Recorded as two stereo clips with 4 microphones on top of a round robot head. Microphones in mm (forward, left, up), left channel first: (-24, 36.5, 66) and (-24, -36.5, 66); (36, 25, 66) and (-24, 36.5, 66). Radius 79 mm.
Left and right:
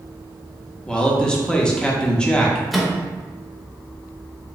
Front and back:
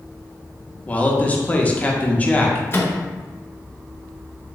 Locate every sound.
0.9 s a man speaking: 25° left, 0.8 m
2.7 s a microwave: straight ahead, 0.9 m